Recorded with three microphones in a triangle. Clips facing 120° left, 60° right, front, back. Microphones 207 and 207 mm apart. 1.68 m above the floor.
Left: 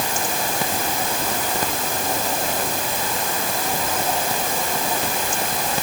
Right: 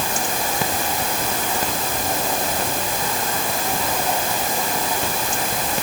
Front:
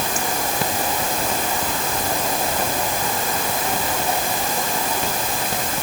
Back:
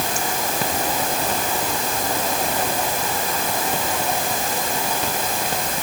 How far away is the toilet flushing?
I don't hear a toilet flushing.